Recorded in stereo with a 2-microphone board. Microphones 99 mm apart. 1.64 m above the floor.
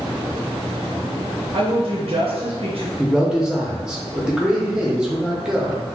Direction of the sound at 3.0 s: 5° right (ahead or behind).